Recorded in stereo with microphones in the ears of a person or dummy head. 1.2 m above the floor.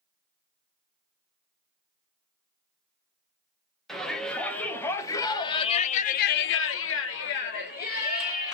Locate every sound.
3.9 s a shout: centre (ahead or behind), 1.5 m; by 8.5 s 45° left (ahead or behind), 1.3 m